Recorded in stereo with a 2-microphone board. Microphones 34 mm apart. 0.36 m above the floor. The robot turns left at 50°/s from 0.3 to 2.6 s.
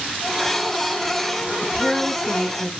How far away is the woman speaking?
About 4.5 m.